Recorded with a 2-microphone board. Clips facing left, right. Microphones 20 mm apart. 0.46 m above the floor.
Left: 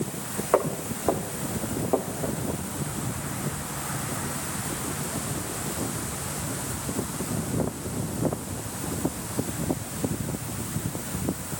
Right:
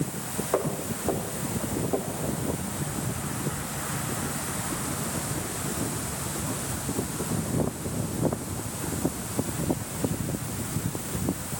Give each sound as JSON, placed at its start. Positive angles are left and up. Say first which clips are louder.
{"t": 0.5, "sound": "footsteps", "louder": "left 4 dB", "side_deg": 25, "distance_m": 3.5}